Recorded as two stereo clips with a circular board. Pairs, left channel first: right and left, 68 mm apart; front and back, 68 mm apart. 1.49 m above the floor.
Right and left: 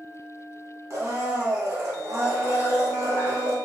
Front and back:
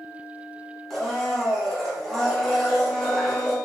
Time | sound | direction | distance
0.9 | a blender | 85° left | 0.8 m